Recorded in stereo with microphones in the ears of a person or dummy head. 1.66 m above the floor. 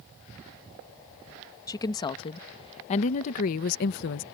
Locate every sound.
1.7 s a woman speaking: 25° left (ahead or behind); by 4.2 s 60° left (ahead or behind)